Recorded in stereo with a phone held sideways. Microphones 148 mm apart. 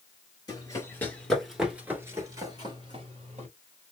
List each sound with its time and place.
0.5 s running footsteps: 25° left (ahead or behind), 1.3 m; by 3.5 s 45° right (ahead or behind), 1.8 m